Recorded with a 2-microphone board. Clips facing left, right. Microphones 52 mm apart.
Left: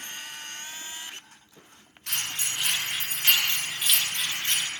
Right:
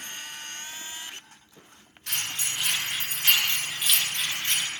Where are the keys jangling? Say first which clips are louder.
Even; 55° left (ahead or behind), 1.5 m; by 4.7 s 30° right (ahead or behind), 1.0 m.